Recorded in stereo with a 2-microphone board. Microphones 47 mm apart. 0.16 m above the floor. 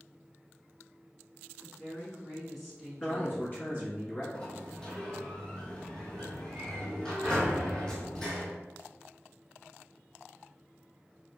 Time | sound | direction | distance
1.6 | a woman speaking | 25° left (ahead or behind) | 2.0 m
3.0 | a man speaking | 35° left (ahead or behind) | 2.0 m
4.3 | a sliding door | 15° left (ahead or behind) | 1.0 m